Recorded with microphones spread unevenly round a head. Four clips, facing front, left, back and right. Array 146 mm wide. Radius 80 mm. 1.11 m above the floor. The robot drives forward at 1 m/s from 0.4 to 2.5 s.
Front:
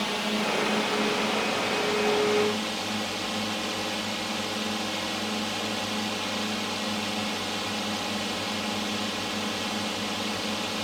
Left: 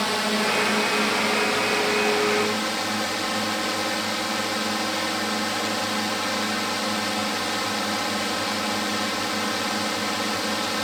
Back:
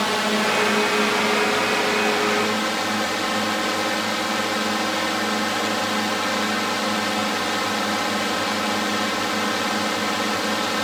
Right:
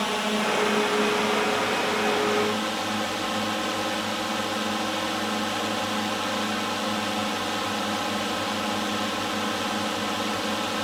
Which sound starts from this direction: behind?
A drone, at 0.0 s.